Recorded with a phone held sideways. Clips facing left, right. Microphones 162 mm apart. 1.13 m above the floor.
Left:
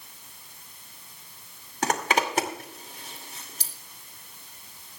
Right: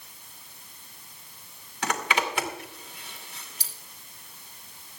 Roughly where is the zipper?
Left.